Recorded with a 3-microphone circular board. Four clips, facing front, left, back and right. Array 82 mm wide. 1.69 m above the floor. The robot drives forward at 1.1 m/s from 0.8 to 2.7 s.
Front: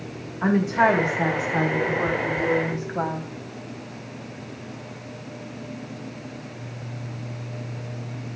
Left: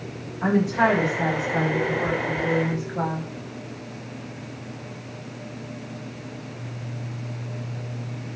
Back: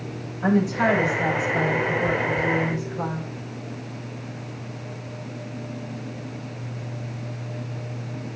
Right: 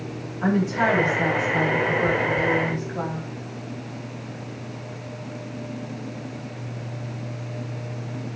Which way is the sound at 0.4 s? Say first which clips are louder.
Left 1 dB, front 1 dB; straight ahead.